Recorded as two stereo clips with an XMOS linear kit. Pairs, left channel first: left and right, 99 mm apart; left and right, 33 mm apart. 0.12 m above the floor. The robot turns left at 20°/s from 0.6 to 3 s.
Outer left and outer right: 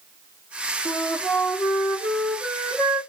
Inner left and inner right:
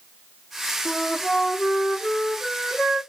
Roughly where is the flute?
Ahead left.